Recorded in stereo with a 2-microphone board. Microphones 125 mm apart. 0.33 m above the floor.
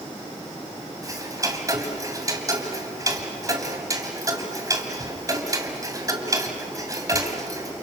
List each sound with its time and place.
1.0 s ticking: 25° right (ahead or behind), 2 m